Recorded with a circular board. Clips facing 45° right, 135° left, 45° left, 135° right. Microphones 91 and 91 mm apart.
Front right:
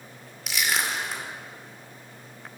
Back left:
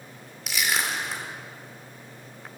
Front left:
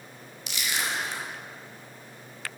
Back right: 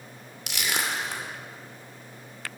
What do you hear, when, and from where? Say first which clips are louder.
0.5 s crushing: even, back right 2 dB; 135° right, 2.5 m